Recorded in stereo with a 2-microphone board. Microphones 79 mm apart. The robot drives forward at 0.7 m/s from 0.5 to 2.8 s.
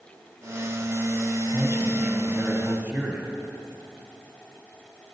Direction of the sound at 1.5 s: 25° right (ahead or behind).